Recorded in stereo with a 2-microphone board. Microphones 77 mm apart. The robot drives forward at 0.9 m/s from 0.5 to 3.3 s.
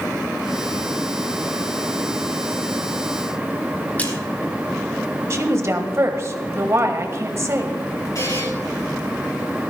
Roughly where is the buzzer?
Left.